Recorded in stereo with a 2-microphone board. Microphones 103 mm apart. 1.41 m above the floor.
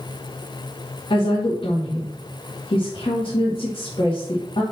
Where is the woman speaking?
55° left (ahead or behind), 1.9 m.